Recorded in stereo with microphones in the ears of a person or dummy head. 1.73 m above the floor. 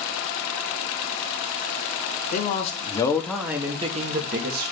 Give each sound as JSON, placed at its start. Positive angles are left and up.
{"t": 2.3, "sound": "a man speaking", "side_deg": 45, "distance_m": 1.1}